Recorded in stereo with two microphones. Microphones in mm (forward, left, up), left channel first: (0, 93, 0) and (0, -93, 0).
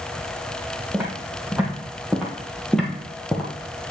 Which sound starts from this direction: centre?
Footsteps, at 0.9 s.